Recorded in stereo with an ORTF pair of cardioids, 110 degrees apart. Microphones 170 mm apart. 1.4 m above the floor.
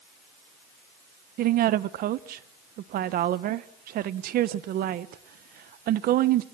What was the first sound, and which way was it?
A woman speaking, 65° right.